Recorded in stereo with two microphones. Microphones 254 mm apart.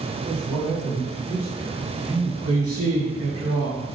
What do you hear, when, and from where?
0.3 s a man speaking: 25° right (ahead or behind), 2.5 m; by 3.5 s 40° left (ahead or behind), 5 m
2.5 s a man speaking: 65° right (ahead or behind), 3.5 m